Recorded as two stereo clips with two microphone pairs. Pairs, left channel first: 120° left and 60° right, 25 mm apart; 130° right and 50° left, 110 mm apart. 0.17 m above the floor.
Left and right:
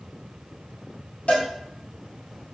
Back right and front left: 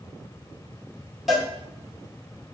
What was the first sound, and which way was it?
A cowbell, 135° left.